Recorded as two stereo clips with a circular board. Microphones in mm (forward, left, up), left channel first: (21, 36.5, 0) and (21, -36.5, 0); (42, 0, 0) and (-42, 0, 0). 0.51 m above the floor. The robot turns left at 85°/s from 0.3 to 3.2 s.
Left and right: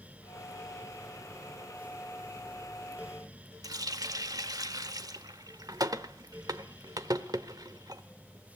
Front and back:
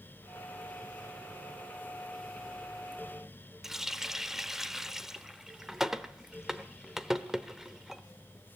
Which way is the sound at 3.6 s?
95° right.